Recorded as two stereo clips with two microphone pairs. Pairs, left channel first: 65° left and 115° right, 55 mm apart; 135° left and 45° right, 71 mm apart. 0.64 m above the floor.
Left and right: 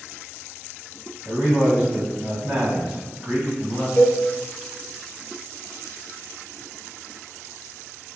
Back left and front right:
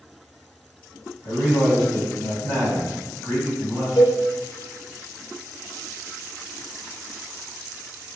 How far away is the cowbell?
About 0.7 m.